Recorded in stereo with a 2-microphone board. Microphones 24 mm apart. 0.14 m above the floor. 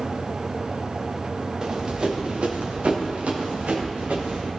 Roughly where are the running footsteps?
Right.